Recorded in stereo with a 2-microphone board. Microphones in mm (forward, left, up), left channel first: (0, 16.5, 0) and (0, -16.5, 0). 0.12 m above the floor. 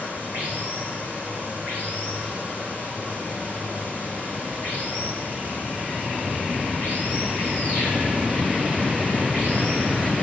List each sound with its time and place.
0.0 s running water: 55° right (ahead or behind), 8 m